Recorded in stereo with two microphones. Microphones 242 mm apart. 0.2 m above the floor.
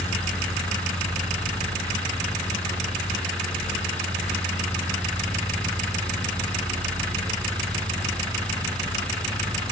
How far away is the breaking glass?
I don't hear breaking glass.